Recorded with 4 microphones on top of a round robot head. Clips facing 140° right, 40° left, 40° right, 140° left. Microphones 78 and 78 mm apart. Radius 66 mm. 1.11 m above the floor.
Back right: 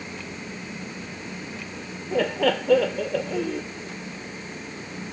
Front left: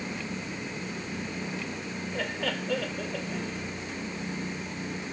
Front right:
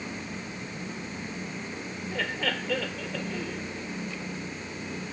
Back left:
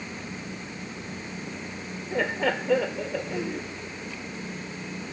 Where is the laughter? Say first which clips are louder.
Back right 11 dB, back left 6 dB; 145° right.